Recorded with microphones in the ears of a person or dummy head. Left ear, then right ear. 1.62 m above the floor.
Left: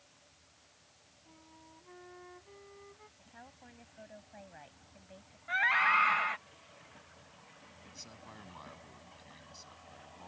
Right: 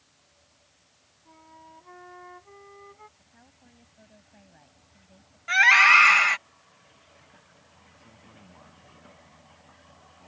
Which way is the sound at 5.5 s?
75° right (ahead or behind).